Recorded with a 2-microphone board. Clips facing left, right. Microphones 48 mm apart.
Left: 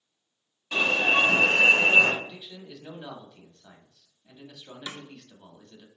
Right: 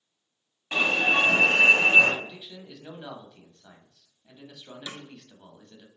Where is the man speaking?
15° right (ahead or behind), 0.9 m.